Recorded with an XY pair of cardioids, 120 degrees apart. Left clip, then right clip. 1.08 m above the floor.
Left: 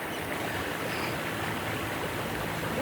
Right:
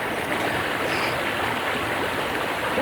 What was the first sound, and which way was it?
Running water, 50° right.